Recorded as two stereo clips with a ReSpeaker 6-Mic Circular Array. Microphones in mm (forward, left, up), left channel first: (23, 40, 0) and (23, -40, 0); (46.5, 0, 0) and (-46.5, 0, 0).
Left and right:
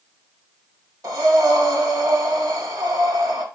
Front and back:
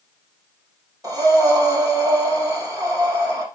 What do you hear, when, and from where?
1.0 s breathing: 130° right, 3 m